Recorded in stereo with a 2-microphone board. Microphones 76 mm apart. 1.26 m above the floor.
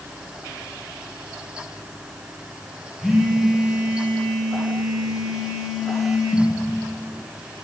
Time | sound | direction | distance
3.0 | a phone buzzing | 5° right (ahead or behind) | 1.6 m